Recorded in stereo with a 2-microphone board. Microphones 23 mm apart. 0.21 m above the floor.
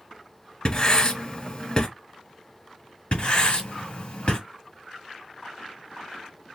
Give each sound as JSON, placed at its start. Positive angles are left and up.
{"t": 0.7, "sound": "writing", "side_deg": 30, "distance_m": 1.1}
{"t": 3.1, "sound": "writing", "side_deg": 50, "distance_m": 2.5}